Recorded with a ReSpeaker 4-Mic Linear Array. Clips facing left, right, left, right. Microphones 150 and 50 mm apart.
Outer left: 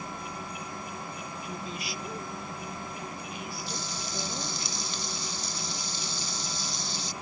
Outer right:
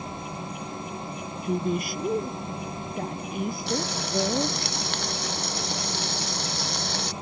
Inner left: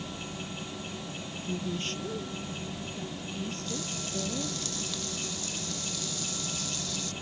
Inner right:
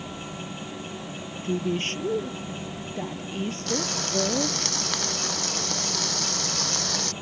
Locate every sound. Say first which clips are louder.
1.4 s a woman speaking: outer right 14 dB, inner right 8 dB; 50° right (ahead or behind)
3.7 s frying: outer right 10 dB, inner right 8 dB; 75° right (ahead or behind)